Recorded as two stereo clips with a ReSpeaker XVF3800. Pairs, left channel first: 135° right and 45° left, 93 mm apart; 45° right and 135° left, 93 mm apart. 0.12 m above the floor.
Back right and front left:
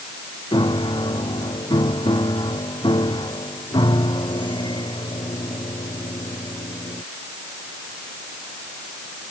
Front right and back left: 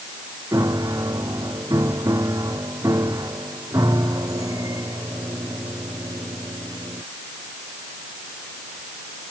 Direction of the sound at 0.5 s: 170° right.